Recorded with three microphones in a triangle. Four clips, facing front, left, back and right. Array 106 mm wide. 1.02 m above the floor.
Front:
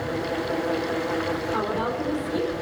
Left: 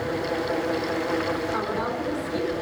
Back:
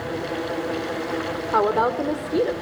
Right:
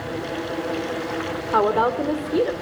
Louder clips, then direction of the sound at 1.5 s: Right 8 dB, back 11 dB; 130° right.